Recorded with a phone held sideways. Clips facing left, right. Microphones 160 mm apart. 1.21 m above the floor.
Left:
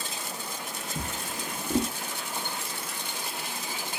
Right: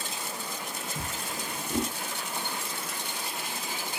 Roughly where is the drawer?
Left.